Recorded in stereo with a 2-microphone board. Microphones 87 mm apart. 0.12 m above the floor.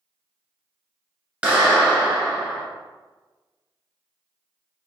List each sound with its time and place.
1.4 s a clap: 10° right (ahead or behind), 1.5 m